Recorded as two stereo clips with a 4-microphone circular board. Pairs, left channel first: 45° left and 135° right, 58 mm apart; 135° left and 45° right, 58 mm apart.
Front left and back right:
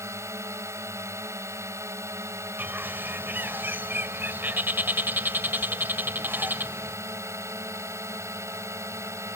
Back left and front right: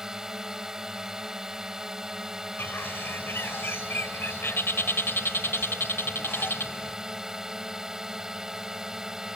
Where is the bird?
175° left.